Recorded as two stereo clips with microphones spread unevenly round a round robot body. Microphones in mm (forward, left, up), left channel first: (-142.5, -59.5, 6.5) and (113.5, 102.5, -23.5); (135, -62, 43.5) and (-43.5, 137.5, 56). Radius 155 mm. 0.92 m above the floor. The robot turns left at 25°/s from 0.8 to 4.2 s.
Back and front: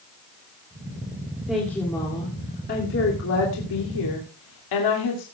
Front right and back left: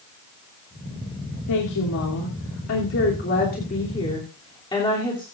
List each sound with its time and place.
1.5 s a woman speaking: 55° right, 2.5 m; by 5.2 s 125° right, 2.5 m